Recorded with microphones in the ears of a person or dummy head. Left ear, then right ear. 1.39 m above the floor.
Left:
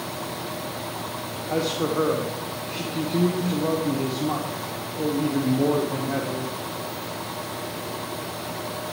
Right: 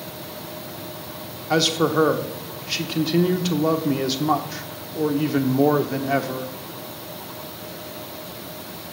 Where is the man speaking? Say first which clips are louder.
Right 5 dB; 80° right, 1.1 m.